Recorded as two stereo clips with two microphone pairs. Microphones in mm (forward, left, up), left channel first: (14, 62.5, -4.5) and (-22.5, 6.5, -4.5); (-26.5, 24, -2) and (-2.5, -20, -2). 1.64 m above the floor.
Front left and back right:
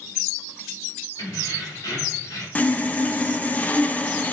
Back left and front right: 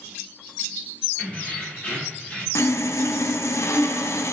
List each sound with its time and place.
1.2 s keys jangling: 65° left, 3.5 m; by 2.5 s 60° left, 2 m
2.5 s sawing: 120° left, 0.7 m